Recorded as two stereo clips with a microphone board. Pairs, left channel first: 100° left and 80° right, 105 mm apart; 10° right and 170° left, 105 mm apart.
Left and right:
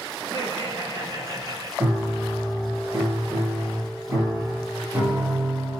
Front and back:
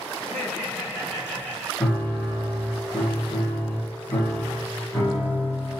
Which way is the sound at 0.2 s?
85° right.